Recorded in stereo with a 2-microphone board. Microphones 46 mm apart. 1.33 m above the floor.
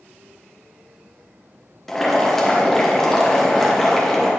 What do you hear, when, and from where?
1.9 s boiling: 10° left (ahead or behind), 1.2 m